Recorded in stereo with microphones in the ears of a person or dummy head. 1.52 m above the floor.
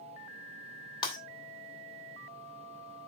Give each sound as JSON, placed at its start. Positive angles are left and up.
{"t": 1.0, "sound": "breaking glass", "side_deg": 30, "distance_m": 2.5}